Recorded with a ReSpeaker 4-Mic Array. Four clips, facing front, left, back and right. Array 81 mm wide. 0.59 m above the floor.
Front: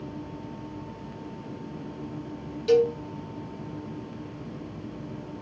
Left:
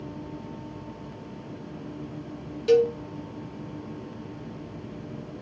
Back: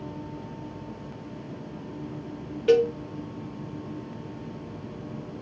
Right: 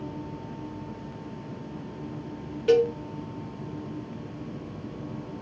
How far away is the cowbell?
About 0.7 m.